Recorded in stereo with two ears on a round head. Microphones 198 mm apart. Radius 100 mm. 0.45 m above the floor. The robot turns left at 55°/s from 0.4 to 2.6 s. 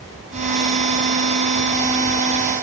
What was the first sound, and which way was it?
Only background noise.